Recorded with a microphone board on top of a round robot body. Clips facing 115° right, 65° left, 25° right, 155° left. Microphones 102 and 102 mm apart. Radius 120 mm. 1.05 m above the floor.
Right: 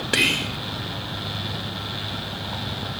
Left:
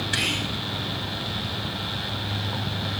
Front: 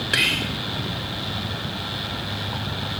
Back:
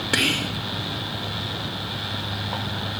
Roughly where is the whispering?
Behind right.